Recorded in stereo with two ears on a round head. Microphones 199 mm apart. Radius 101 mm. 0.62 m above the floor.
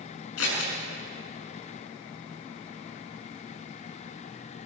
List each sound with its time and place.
0.4 s scissors: 75° left (ahead or behind), 7 m